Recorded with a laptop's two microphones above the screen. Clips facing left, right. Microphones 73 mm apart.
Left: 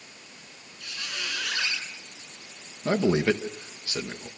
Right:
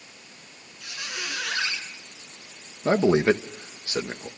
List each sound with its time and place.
0.8 s a squeak: 15° right (ahead or behind), 8 m
2.9 s a man speaking: 25° right (ahead or behind), 0.9 m